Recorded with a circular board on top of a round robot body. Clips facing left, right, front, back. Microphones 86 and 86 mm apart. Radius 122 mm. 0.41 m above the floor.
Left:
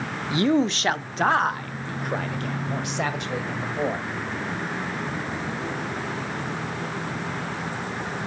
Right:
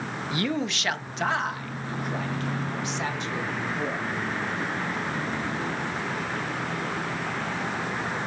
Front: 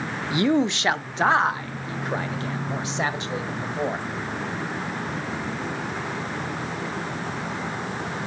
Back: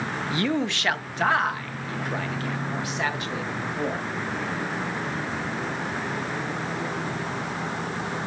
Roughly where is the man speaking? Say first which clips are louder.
Left 8 dB, front 6 dB; ahead left.